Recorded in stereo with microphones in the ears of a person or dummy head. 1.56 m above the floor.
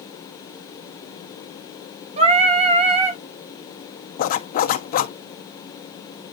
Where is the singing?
30° right (ahead or behind), 1.2 m.